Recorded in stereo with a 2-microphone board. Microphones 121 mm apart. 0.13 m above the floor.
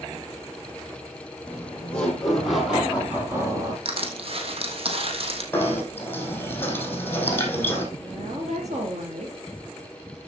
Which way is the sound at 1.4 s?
15° left (ahead or behind).